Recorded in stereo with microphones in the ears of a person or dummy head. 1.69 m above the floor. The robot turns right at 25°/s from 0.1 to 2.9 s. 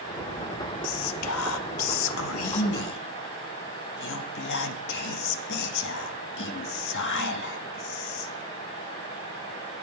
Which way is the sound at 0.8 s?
65° left.